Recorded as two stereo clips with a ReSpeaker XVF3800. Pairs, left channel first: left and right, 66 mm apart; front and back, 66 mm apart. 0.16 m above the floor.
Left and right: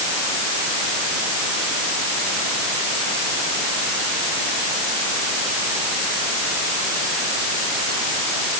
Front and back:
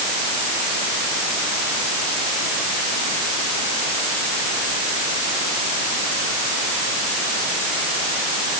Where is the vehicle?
No vehicle in this recording.